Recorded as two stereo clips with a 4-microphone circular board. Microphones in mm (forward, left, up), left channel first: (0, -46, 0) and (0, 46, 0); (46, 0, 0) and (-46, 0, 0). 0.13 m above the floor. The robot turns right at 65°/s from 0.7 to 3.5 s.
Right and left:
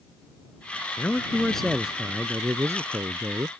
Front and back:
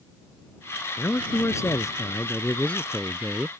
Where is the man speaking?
45° right; by 3.5 s 115° left.